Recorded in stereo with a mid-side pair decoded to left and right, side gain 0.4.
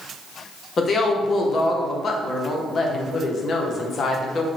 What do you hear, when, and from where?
0.8 s a woman speaking: 55° left, 0.6 m